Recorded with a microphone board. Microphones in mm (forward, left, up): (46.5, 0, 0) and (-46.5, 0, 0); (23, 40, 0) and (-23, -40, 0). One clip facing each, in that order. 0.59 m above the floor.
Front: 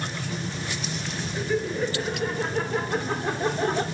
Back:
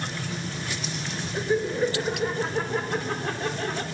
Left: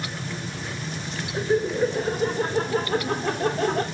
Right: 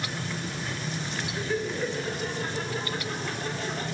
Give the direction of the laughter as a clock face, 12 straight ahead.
8 o'clock.